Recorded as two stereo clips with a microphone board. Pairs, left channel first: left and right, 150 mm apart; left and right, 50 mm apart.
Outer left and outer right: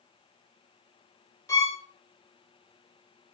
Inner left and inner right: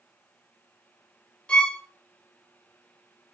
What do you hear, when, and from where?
1.5 s a violin: 20° left (ahead or behind), 0.7 m